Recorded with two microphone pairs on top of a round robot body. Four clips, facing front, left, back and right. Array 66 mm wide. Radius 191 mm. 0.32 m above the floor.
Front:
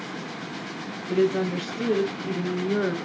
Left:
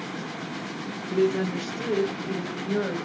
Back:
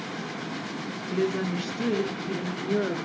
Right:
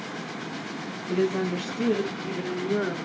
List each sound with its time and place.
1.1 s a woman speaking: 45° right, 5 m; by 3.0 s 55° right, 5.5 m